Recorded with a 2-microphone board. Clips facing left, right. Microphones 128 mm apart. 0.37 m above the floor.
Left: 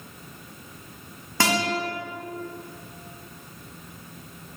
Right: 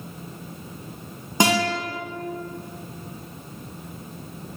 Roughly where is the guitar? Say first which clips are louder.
Right 4 dB; right.